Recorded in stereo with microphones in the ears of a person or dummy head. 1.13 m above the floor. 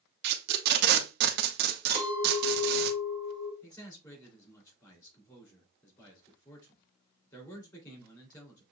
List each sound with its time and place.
0.2 s tape being pulled: 55° right (ahead or behind), 0.6 m
1.9 s a clink: 50° left (ahead or behind), 2 m
3.6 s a man speaking: 20° left (ahead or behind), 2.5 m